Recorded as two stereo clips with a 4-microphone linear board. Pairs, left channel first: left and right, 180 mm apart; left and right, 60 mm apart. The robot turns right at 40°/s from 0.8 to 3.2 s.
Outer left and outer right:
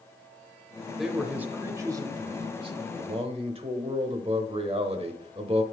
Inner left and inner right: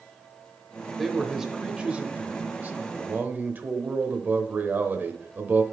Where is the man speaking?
Straight behind, 0.9 m; by 5.6 s 90° right, 0.9 m.